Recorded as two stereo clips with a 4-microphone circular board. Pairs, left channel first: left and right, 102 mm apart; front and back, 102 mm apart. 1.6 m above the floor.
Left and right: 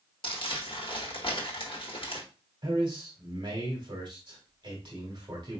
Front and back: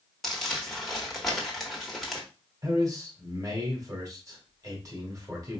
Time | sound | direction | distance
0.2 | crumpling | 90° left | 1.2 m
2.6 | a man speaking | 130° right | 1.6 m